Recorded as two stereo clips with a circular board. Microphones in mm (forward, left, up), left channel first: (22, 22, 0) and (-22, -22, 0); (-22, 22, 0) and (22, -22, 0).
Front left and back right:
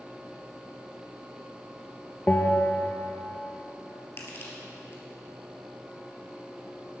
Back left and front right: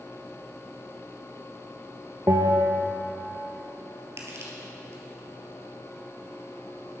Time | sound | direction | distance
2.3 | a bell | 15° right | 1.5 m
4.2 | crushing | 5° right | 3 m